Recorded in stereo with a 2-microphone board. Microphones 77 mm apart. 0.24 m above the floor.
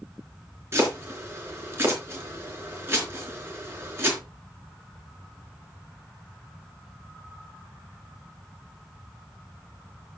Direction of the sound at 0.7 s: 30° right (ahead or behind).